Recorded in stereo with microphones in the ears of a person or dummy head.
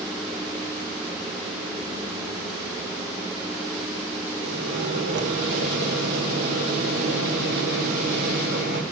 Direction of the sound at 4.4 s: 65° right (ahead or behind).